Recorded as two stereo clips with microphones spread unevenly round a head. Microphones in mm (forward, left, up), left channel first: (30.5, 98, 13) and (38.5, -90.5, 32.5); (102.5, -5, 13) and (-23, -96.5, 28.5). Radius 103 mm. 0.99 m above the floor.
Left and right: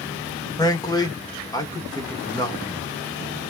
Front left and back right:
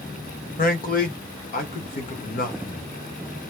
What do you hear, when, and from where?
0.6 s a man speaking: 30° left, 1.7 m